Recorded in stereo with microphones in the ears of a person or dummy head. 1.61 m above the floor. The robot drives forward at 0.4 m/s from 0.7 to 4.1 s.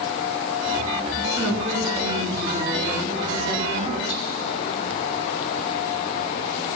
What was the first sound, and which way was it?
A woman speaking, 60° right (ahead or behind).